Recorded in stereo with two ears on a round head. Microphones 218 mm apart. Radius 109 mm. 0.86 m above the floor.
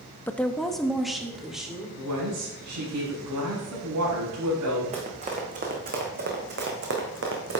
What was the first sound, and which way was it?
A woman speaking, 10° left (ahead or behind).